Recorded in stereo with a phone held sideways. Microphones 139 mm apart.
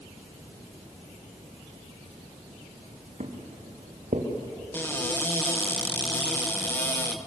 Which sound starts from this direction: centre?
A cupboard door, at 4.7 s.